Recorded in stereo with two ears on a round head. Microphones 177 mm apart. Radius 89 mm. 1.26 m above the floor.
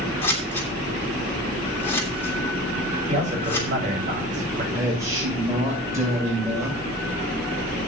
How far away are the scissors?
About 3 m.